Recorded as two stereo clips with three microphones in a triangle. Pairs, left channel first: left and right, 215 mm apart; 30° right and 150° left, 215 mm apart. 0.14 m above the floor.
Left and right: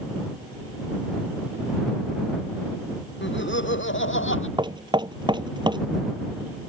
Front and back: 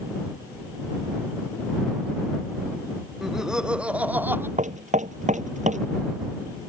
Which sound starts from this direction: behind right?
Knocking, at 4.6 s.